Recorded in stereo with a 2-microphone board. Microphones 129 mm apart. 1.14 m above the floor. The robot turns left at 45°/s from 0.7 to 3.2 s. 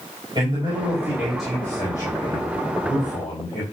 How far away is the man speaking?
About 4.5 m.